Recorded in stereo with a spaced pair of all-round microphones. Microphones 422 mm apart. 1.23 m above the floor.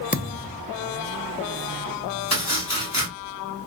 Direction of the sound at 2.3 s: 40° left (ahead or behind).